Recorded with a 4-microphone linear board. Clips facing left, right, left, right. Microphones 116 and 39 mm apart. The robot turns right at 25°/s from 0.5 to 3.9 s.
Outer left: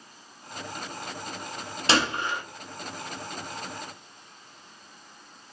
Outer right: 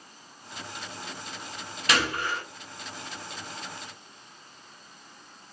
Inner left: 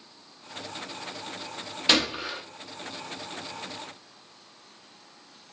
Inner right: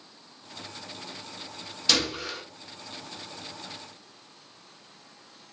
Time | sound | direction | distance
1.9 | a gunshot | 30° left (ahead or behind) | 0.5 m